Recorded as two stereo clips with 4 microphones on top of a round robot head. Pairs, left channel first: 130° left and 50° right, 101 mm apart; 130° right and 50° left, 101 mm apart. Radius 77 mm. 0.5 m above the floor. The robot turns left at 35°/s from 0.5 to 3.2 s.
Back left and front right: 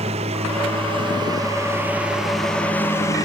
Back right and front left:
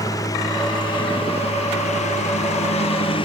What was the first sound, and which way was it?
A lawn mower, 75° right.